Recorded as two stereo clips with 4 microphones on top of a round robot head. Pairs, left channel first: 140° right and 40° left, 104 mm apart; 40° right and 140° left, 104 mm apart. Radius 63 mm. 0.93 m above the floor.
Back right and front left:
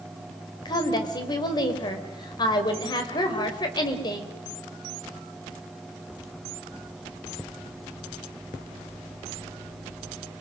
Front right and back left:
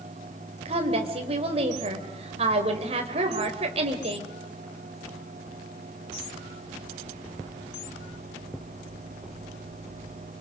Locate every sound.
0.7 s a woman speaking: 170° left, 3.5 m